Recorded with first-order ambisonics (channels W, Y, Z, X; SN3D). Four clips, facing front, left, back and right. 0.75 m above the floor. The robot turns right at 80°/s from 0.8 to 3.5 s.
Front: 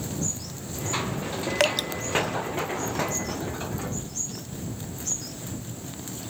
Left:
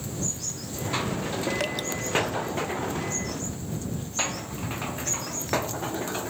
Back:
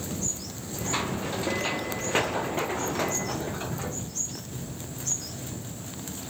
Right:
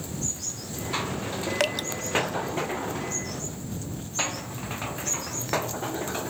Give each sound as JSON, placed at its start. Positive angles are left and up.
{"t": 1.6, "sound": "dripping", "azimuth_deg": -20}